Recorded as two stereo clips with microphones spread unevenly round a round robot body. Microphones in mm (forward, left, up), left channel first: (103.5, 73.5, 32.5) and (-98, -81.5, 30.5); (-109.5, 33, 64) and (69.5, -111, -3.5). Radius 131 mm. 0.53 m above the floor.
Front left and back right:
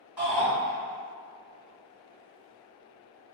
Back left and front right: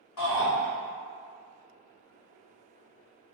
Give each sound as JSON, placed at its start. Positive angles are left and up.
{"t": 0.2, "sound": "a shout", "azimuth_deg": 135, "distance_m": 1.9}